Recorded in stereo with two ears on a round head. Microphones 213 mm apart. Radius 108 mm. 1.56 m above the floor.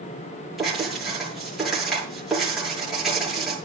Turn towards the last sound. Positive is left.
turn(degrees=0)  # may be behind; listen again after turning